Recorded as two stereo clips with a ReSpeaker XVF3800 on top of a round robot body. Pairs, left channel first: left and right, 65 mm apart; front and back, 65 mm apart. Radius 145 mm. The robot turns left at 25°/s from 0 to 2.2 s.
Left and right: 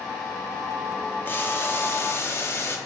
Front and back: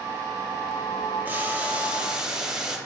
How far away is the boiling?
About 1.3 m.